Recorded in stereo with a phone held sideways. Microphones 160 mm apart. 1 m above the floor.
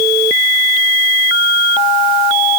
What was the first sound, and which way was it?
Only background noise.